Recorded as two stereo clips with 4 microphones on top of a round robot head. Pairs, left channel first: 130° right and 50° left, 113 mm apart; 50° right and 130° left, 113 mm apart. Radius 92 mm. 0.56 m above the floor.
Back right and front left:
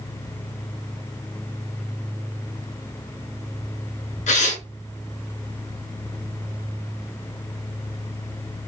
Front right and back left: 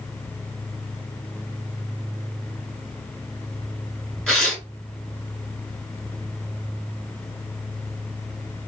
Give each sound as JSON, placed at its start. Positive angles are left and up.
{"t": 4.3, "sound": "tearing paper", "azimuth_deg": -135, "distance_m": 2.0}